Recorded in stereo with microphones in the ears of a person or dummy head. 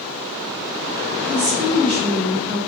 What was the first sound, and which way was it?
A woman speaking, 20° right (ahead or behind).